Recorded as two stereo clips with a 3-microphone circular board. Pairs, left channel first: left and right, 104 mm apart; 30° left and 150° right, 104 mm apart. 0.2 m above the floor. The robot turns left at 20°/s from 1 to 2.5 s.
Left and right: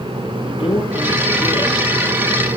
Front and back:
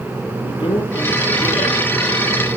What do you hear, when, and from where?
0.4 s a man speaking: 65° left, 5 m; by 1.9 s 50° left, 5 m